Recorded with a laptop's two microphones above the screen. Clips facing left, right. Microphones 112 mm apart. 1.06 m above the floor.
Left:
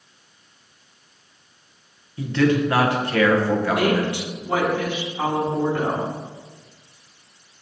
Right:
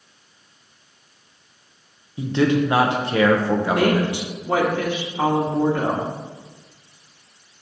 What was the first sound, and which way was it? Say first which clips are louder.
A man speaking: even; 20° right (ahead or behind).